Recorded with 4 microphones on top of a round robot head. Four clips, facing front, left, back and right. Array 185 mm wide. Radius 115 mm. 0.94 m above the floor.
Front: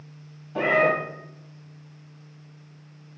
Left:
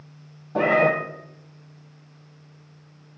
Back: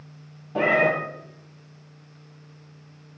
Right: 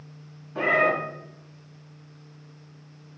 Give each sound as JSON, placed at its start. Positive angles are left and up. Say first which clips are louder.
{"t": 0.6, "sound": "a cat meowing", "louder": "left 4 dB, even", "azimuth_deg": 115, "distance_m": 2.5}